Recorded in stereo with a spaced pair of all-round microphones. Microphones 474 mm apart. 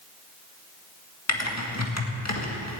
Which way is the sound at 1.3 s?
35° left (ahead or behind).